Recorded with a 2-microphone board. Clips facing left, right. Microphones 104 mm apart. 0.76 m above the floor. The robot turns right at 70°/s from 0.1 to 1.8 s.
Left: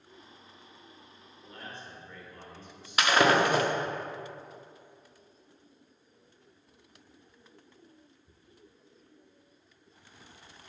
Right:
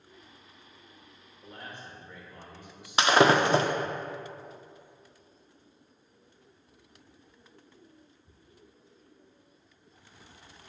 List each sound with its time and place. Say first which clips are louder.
1.4 s a man speaking: right 1 dB; 40° right (ahead or behind), 3 m; by 4.0 s 15° right (ahead or behind), 3 m
3.0 s breaking glass: right 2 dB; 30° right (ahead or behind), 0.7 m